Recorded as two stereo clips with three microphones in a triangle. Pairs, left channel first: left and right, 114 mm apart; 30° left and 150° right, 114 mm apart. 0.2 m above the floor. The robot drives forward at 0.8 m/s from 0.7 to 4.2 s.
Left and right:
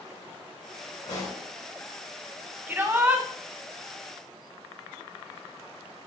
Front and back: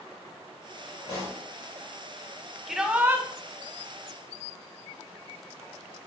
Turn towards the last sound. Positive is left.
turn(degrees=-165)